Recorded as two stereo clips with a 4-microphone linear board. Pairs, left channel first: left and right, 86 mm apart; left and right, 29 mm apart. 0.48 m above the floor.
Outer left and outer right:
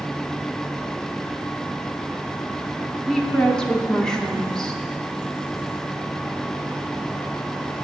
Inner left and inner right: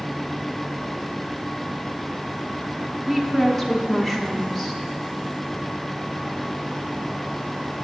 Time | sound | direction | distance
3.1 | a woman speaking | 10° left (ahead or behind) | 0.7 m